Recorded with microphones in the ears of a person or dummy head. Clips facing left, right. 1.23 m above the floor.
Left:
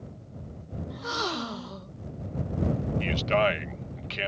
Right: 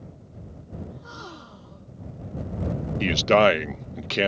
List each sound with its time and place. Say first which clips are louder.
0.9 s a gasp: left 8 dB; 75° left (ahead or behind)
3.0 s a man speaking: right 8 dB; 65° right (ahead or behind)